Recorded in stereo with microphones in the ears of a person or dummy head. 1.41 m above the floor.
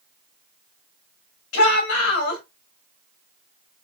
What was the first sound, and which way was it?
A shout, 85° left.